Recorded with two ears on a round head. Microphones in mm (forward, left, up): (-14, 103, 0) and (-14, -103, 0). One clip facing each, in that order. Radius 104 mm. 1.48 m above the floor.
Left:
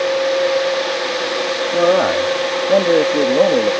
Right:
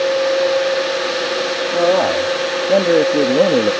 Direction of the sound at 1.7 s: 10° left (ahead or behind).